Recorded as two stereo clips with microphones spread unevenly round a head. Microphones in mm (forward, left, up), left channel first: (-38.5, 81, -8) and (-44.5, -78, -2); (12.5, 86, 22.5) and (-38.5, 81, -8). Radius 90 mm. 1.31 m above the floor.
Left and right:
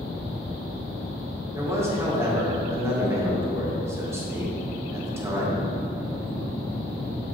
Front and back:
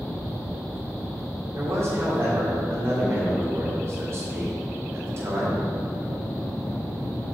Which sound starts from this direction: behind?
A man speaking, at 1.5 s.